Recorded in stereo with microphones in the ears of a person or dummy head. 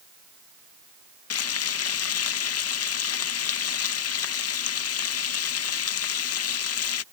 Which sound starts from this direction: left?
Frying, at 1.3 s.